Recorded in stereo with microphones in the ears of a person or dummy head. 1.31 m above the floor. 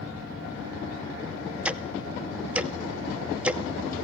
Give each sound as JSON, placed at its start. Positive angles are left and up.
{"t": 1.6, "sound": "ticking", "side_deg": -10, "distance_m": 0.6}